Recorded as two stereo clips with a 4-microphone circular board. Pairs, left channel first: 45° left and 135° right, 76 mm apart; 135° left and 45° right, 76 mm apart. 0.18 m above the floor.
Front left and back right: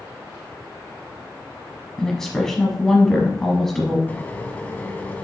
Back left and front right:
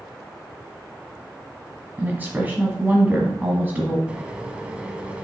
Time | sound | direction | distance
2.0 | a woman speaking | 30° right | 1.0 m
4.1 | a microwave | 10° left | 0.9 m